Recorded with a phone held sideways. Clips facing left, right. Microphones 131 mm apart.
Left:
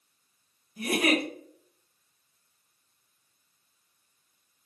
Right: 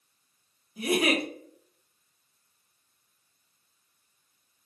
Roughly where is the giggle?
Centre.